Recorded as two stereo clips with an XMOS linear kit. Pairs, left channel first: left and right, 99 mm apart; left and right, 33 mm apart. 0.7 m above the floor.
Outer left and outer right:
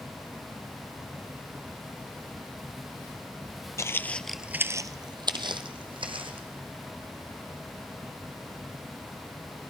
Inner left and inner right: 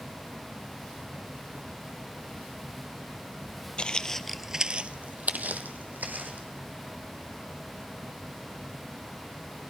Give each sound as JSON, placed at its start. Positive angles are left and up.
{"t": 3.8, "sound": "footsteps", "side_deg": 30, "distance_m": 0.9}